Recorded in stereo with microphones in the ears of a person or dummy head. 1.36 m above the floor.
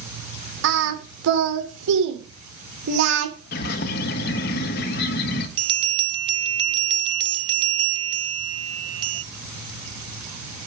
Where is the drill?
No drill in this recording.